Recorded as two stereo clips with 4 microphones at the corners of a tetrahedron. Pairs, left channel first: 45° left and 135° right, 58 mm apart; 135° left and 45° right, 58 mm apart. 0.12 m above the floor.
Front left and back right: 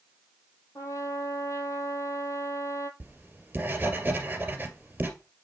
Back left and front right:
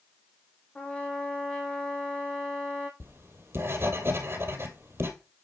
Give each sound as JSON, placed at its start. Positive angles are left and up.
{"t": 0.8, "sound": "a trumpet", "azimuth_deg": 65, "distance_m": 1.6}
{"t": 3.0, "sound": "writing", "azimuth_deg": -80, "distance_m": 2.0}